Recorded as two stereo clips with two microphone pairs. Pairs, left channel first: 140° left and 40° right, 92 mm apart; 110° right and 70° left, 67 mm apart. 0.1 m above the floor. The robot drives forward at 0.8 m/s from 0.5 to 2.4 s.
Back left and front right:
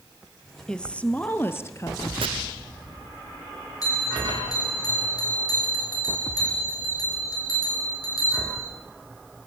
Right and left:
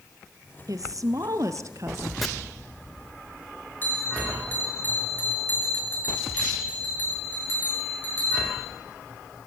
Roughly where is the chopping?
Ahead right.